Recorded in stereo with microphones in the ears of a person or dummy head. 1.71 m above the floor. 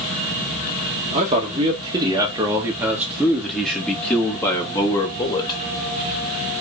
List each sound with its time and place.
1.1 s a man speaking: 30° right (ahead or behind), 2 m; by 5.6 s 35° left (ahead or behind), 2.5 m